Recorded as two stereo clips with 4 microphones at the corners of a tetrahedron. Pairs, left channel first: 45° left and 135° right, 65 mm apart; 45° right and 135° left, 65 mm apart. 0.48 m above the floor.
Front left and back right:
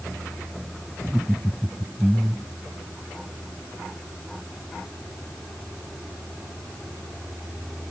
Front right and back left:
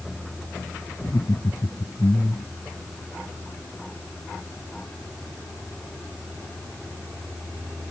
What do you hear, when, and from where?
1.0 s laughter: 50° right